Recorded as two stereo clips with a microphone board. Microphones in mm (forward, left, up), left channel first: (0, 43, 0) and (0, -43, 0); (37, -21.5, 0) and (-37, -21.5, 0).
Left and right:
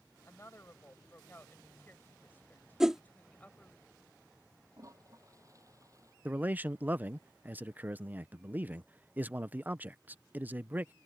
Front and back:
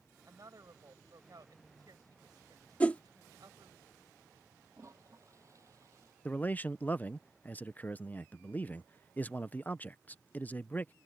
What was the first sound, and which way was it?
A woman speaking, 145° left.